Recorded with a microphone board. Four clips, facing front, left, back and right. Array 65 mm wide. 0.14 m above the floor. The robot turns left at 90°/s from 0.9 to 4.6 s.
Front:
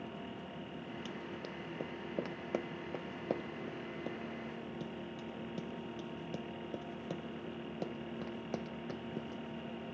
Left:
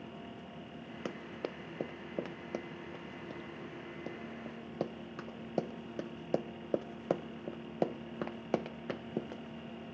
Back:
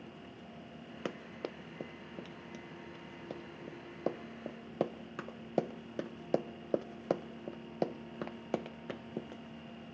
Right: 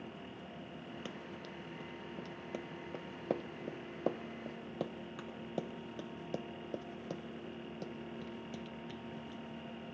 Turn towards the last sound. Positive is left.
turn(degrees=100)